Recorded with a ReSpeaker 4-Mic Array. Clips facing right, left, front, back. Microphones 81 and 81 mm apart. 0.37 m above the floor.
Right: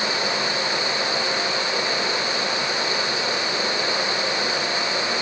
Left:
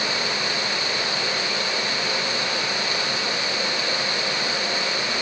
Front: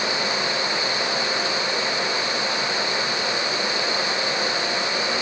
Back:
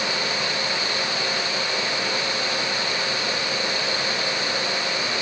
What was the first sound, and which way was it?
Only background noise.